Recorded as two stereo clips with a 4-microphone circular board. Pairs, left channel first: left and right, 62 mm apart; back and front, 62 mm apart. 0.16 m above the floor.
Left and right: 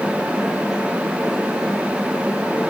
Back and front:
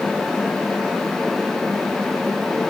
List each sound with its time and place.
Only background noise.